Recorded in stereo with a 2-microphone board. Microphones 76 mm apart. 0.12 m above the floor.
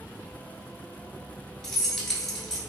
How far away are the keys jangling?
About 1.1 m.